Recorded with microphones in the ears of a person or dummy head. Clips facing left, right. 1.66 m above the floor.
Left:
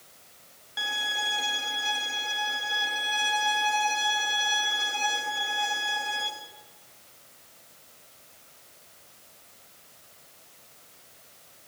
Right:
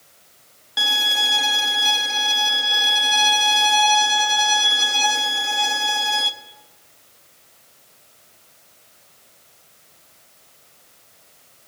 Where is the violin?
60° right (ahead or behind), 0.6 m.